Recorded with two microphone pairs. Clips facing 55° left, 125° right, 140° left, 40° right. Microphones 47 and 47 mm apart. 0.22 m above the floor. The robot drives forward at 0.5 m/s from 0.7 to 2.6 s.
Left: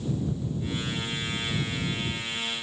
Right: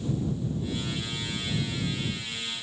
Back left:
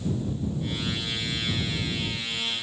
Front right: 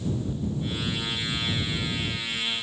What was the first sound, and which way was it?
Only background noise.